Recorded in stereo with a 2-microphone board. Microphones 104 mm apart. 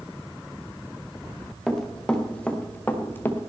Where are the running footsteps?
5° left (ahead or behind), 2.5 m; by 3.5 s 25° left (ahead or behind), 1.7 m.